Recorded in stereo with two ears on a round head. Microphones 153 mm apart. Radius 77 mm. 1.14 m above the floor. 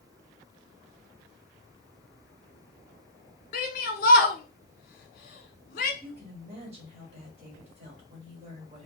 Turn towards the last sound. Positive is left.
turn(degrees=-35)  # may be behind; listen again after turning